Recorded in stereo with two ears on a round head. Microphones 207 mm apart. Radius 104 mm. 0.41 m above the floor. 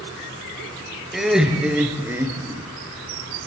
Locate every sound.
1.1 s laughter: centre (ahead or behind), 6.5 m; by 2.7 s 15° right (ahead or behind), 5.5 m